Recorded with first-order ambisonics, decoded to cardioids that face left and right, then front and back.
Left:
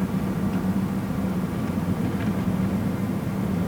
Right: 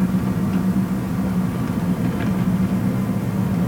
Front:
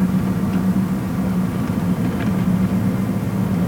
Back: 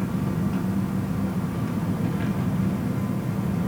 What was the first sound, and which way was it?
An engine running, 30° right.